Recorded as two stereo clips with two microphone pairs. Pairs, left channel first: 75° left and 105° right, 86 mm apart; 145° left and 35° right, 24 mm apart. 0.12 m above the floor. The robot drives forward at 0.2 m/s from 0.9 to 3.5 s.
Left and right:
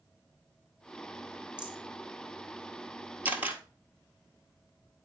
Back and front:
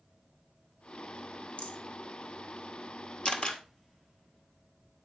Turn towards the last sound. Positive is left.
turn(degrees=-170)